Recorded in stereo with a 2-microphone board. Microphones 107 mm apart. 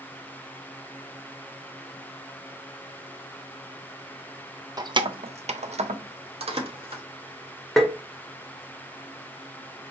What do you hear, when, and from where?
4.8 s keys jangling: 35° right (ahead or behind), 0.5 m; by 7.0 s 55° right (ahead or behind), 1.2 m
7.8 s tapping: centre (ahead or behind), 0.7 m